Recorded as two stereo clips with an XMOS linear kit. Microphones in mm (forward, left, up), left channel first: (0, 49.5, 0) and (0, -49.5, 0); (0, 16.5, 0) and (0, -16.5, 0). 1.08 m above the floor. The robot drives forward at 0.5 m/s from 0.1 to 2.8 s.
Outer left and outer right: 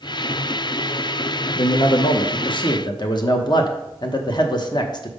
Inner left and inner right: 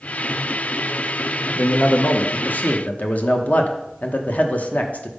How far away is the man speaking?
About 0.6 m.